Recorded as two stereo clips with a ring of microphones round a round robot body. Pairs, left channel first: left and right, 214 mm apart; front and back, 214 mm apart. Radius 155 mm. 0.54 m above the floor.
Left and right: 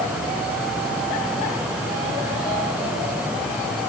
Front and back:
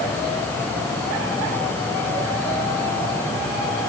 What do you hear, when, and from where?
Only background noise.